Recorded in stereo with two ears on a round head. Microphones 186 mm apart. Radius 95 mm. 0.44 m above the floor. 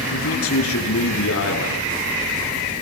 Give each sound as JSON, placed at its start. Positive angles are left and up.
{"t": 0.1, "sound": "a man speaking", "side_deg": 80, "distance_m": 6.5}